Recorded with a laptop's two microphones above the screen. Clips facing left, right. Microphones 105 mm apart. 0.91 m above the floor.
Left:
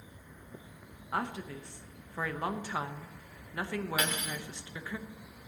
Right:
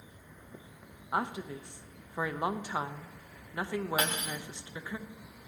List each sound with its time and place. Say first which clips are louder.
1.1 s a woman speaking: right 2 dB; 20° right (ahead or behind), 0.7 m
4.0 s cutlery clinking: right 1 dB; 35° right (ahead or behind), 1.8 m